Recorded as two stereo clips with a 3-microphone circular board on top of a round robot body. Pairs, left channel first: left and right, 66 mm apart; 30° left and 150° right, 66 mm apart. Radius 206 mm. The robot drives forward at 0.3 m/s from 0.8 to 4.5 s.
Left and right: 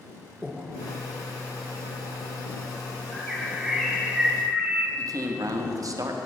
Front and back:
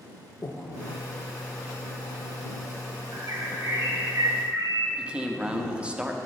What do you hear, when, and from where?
0.4 s breathing: 5° right, 0.7 m
3.1 s a bird: 175° right, 1.5 m; by 4.9 s straight behind, 1.9 m
5.0 s a man speaking: 80° right, 1.1 m